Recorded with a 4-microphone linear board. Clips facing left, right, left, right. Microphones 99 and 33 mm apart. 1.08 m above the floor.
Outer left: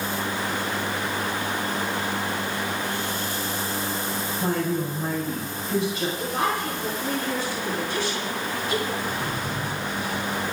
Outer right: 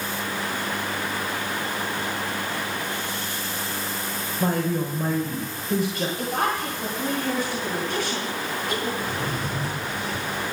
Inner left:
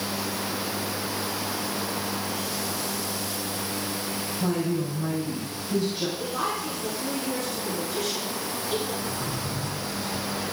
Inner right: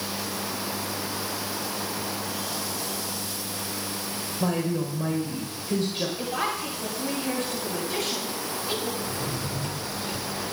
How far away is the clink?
No clink in this recording.